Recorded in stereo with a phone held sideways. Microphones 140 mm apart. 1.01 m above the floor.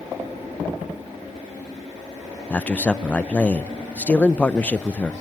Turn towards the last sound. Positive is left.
turn(degrees=10)  # may be behind; listen again after turning